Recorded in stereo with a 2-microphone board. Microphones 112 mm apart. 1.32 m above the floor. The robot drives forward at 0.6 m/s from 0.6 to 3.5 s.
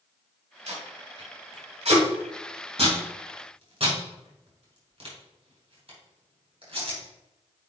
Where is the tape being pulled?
80° right, 3.5 m; by 7.0 s 60° right (ahead or behind), 4 m.